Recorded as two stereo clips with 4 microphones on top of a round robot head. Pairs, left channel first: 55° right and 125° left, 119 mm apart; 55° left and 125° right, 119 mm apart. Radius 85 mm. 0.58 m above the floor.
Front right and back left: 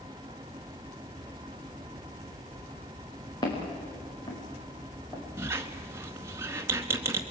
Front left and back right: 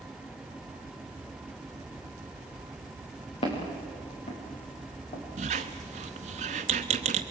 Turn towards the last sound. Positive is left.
turn(degrees=-160)